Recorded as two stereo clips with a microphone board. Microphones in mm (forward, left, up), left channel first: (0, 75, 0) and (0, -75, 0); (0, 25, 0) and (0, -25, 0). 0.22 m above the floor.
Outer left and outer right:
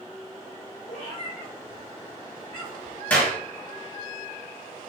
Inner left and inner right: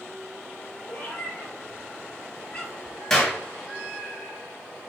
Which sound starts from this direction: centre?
A clap, at 3.1 s.